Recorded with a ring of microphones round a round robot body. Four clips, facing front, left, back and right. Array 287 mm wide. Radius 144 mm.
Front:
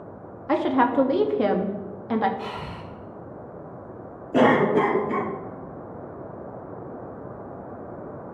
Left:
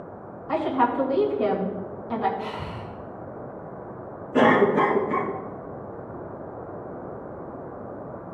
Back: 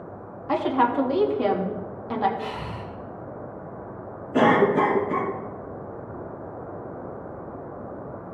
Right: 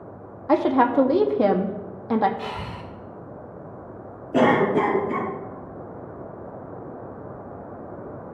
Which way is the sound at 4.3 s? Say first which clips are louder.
Even, even; 45° right.